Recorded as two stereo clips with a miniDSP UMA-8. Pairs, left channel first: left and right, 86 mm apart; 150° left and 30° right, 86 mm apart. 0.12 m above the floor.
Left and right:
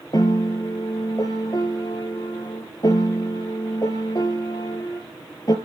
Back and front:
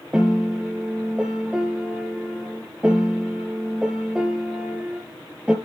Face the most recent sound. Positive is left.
turn(degrees=50)